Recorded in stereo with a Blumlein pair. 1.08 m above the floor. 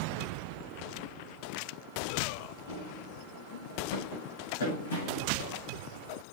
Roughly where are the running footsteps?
Ahead left.